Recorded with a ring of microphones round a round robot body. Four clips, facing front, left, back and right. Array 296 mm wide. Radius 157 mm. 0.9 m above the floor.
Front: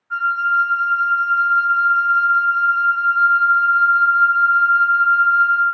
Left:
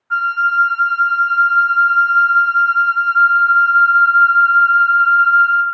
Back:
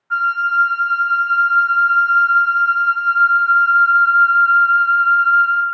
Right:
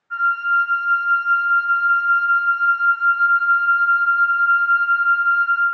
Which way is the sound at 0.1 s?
120° left.